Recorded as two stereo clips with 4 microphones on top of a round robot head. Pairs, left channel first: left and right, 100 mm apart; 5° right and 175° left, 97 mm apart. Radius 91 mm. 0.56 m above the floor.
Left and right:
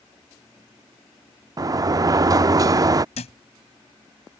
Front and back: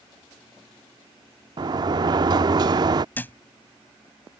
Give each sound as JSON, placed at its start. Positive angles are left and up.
{"t": 1.6, "sound": "a sliding door", "azimuth_deg": -140}
{"t": 3.1, "sound": "a thud", "azimuth_deg": 70}